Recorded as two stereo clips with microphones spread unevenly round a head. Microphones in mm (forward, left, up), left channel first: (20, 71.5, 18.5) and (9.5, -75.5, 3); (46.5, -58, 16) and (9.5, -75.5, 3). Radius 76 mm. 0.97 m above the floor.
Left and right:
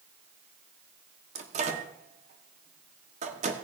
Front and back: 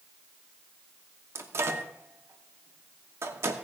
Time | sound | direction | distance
1.4 | a microwave | 145° right | 1.2 m